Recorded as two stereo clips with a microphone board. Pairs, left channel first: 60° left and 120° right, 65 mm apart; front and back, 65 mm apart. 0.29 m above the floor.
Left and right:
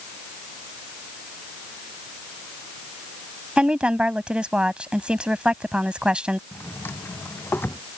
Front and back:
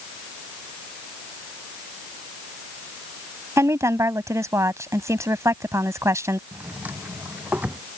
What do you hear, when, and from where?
3.6 s a woman speaking: 170° left
6.5 s a drawer: 115° left